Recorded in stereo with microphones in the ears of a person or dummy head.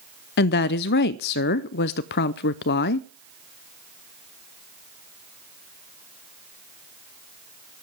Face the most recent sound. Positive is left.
turn(degrees=50)  # may be behind; listen again after turning